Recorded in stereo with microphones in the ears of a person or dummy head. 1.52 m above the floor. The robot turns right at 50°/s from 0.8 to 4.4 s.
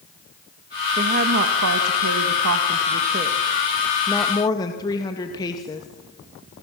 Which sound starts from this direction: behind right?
A woman speaking, at 1.0 s.